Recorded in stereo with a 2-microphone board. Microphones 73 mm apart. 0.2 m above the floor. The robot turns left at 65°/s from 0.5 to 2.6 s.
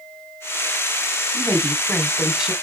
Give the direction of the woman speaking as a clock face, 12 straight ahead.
10 o'clock.